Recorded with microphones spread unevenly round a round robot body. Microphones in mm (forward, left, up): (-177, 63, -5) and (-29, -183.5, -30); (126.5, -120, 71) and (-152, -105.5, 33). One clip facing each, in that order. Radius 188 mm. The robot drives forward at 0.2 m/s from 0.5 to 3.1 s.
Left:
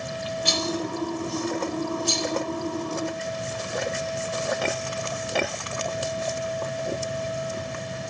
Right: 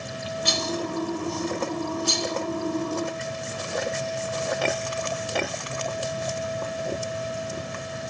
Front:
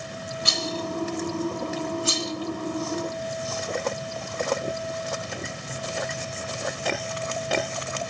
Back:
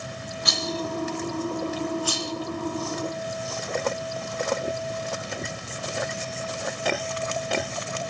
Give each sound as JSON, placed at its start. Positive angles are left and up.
{"t": 0.5, "sound": "a rattle", "azimuth_deg": -60, "distance_m": 2.5}